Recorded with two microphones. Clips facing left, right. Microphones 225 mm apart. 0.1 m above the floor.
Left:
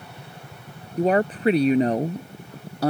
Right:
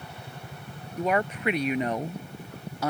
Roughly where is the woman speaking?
Left.